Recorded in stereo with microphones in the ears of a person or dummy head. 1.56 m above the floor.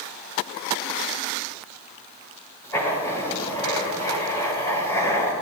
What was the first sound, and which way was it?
Writing, 15° left (ahead or behind).